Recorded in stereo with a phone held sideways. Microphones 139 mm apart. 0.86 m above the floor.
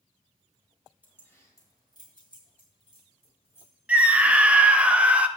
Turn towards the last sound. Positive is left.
turn(degrees=-10)  # may be behind; listen again after turning